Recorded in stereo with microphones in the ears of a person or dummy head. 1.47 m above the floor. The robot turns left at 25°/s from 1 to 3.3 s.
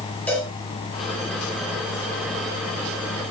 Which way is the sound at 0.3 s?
10° left (ahead or behind).